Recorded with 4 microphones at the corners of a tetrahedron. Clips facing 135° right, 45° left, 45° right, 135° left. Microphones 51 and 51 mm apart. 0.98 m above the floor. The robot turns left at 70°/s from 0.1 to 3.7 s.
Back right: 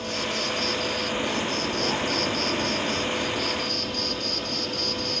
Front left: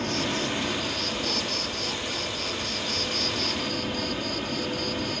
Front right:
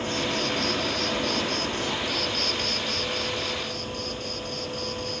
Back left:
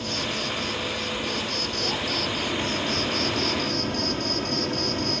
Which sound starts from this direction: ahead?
An insect, at 0.0 s.